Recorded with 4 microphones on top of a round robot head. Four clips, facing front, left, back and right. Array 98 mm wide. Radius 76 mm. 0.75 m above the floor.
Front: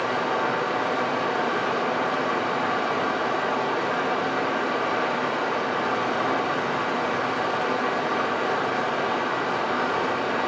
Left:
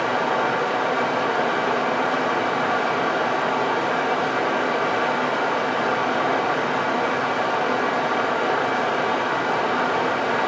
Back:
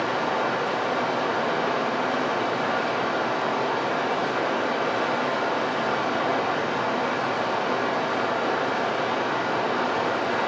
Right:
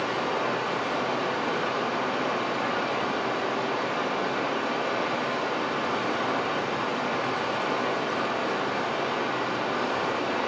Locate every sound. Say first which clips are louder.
0.0 s running water: left 6 dB, even; 90° left, 2.5 m